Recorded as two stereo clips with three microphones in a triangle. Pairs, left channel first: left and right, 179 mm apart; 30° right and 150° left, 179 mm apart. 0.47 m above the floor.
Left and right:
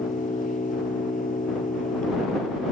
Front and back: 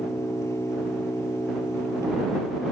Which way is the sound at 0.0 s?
45° left.